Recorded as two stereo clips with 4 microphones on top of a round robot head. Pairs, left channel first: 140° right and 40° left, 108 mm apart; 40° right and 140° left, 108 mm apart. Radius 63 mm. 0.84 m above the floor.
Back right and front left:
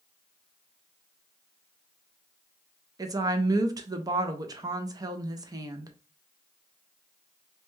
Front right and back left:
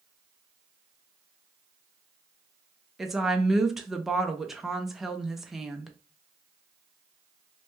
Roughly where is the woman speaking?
Ahead left.